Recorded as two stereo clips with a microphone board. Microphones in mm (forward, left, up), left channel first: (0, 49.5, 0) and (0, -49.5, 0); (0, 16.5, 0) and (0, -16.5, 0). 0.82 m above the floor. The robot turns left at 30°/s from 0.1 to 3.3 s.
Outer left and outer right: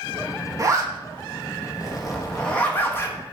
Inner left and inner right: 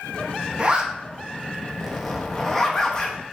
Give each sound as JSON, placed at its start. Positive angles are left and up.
{"t": 0.6, "sound": "a zipper", "side_deg": -35, "distance_m": 0.6}